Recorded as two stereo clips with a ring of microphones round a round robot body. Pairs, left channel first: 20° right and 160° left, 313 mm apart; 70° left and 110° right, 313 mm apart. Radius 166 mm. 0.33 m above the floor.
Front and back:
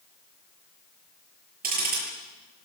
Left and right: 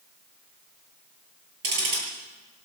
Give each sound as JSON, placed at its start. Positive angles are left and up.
{"t": 1.6, "sound": "ticking", "azimuth_deg": -140, "distance_m": 8.5}